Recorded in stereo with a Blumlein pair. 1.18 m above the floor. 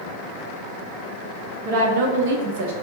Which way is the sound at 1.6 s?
50° right.